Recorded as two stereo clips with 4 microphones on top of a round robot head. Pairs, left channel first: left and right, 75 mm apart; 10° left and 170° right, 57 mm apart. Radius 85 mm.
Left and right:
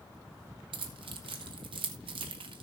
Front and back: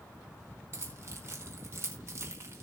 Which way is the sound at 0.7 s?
110° right.